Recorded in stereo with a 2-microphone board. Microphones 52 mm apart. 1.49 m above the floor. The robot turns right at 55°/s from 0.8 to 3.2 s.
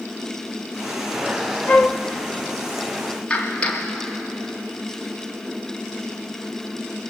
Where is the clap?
20° left (ahead or behind), 3 m.